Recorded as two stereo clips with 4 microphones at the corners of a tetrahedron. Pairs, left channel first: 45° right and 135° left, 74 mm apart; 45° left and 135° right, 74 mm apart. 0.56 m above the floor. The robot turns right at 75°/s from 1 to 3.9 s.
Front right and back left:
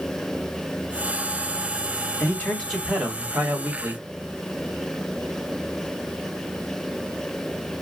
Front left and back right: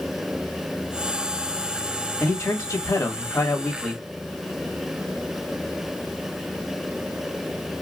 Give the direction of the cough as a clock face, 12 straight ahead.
I don't hear a cough.